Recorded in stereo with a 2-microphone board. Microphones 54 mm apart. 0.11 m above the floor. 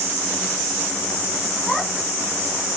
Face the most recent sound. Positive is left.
turn(degrees=10)  # may be behind; listen again after turning